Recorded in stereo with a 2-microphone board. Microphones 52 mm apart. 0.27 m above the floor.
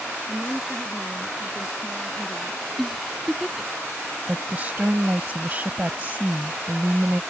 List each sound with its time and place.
0.3 s a woman speaking: 5° right (ahead or behind)
2.8 s a giggle: 5° right (ahead or behind)
4.3 s a woman speaking: 35° right (ahead or behind)